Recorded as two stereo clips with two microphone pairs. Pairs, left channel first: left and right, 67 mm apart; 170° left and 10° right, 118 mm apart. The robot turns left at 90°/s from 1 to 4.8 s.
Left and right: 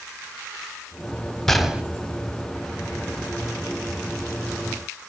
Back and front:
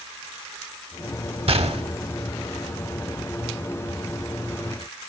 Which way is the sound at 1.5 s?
10° left.